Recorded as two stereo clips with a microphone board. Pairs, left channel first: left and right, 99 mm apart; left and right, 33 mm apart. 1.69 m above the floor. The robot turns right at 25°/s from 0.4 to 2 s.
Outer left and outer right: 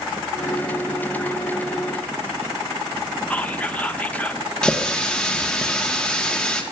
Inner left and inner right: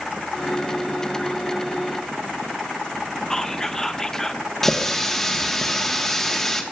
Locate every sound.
3.3 s whispering: 15° left (ahead or behind), 0.6 m
4.6 s a running tap: 10° left (ahead or behind), 1.0 m